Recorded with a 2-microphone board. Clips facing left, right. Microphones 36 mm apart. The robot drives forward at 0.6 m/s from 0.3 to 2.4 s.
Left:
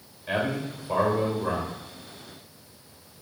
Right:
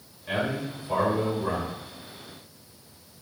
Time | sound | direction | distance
0.3 | a man speaking | 25° left (ahead or behind) | 1.4 m